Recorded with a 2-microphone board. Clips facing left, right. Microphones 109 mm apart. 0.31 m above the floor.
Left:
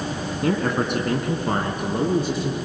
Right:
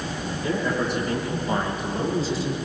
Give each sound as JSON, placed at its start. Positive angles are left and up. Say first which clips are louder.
{"t": 0.4, "sound": "a man speaking", "louder": "left 3 dB", "side_deg": 70, "distance_m": 3.5}